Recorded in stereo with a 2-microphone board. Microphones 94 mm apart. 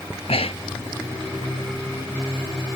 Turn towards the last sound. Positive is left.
turn(degrees=80)